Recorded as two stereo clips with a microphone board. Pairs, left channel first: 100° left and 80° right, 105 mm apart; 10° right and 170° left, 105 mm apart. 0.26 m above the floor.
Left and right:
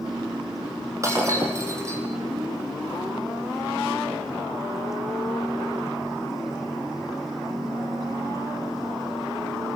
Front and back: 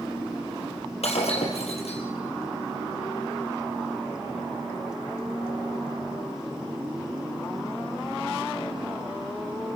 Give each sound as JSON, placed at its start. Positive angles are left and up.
{"t": 1.0, "sound": "breaking glass", "azimuth_deg": -15, "distance_m": 3.5}